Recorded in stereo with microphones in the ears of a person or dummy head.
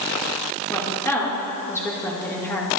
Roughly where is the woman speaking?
Centre.